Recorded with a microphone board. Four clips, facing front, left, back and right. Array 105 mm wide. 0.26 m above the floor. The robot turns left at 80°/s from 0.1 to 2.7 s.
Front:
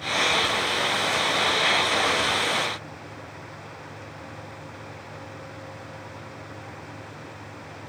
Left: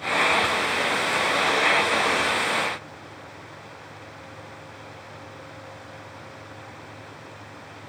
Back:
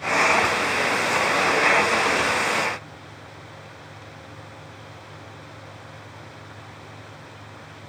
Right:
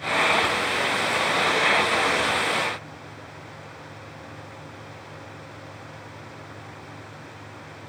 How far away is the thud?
No thud in this recording.